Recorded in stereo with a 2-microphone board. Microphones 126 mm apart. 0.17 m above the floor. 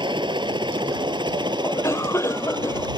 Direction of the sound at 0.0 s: 35° right (ahead or behind).